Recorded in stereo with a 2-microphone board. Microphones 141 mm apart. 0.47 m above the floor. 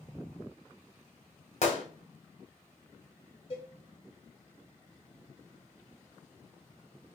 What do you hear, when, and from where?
1.6 s a gunshot: 50° left (ahead or behind), 1.0 m
3.5 s a cowbell: 35° left (ahead or behind), 1.1 m